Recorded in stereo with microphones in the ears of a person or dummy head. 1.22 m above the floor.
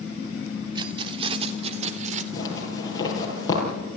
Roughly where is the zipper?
Left.